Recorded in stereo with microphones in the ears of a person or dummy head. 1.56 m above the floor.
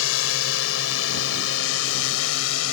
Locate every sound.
0.0 s a drone: 90° left; by 2.7 s 80° left